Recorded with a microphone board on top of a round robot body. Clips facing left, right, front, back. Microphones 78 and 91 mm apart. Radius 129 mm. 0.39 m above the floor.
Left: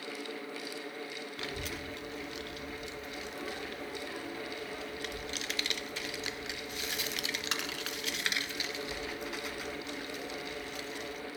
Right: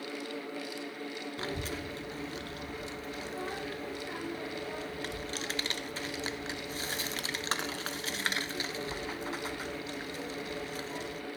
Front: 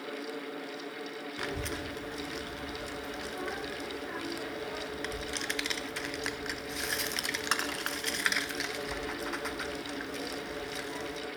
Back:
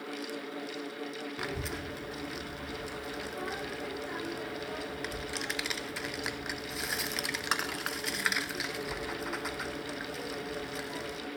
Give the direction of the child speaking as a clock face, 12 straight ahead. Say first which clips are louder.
Right 3 dB, front 3 dB; 3 o'clock.